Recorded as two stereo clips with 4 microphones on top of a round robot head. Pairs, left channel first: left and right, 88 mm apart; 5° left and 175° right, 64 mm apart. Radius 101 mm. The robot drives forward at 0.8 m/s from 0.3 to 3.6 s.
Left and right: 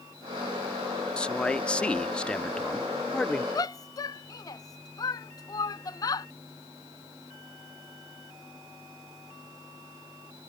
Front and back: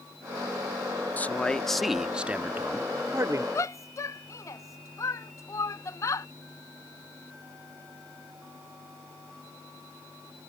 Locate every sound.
1.2 s a man speaking: 25° left; by 3.5 s 170° left
3.5 s a shout: 45° left